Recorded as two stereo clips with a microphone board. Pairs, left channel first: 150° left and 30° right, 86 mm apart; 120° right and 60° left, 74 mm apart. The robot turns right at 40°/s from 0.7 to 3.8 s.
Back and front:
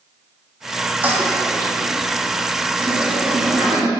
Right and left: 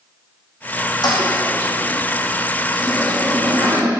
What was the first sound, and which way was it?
A toilet flushing, 100° right.